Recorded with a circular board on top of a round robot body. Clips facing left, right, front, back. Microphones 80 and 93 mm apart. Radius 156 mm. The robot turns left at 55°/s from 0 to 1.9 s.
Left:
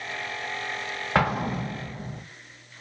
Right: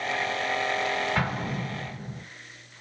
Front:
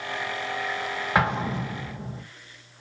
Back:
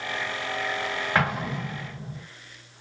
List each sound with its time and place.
1.1 s an explosion: 75° left, 1.0 m; by 2.2 s 35° left, 1.0 m